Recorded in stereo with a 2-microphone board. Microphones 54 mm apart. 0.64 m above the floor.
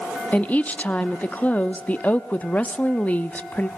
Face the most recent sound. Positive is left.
turn(degrees=30)  # may be behind; listen again after turning